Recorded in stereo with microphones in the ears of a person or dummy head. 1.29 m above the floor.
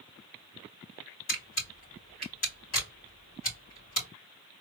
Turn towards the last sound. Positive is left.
turn(degrees=45)  # may be behind; listen again after turning